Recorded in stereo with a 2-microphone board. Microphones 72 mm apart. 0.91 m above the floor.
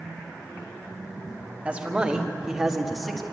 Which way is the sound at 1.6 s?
20° right (ahead or behind).